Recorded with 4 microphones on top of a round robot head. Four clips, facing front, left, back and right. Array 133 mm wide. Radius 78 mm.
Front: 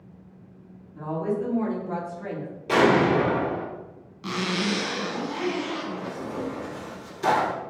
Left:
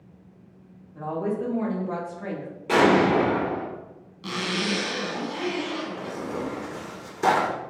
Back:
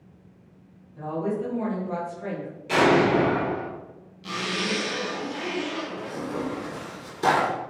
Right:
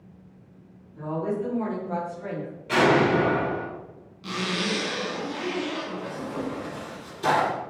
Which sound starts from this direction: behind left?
Tearing paper, at 6.0 s.